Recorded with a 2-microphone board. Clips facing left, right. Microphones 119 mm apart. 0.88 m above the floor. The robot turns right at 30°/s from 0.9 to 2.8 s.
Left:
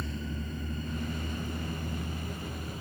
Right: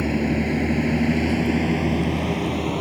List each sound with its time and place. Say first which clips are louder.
0.0 s a vehicle: right 17 dB; 75° right (ahead or behind)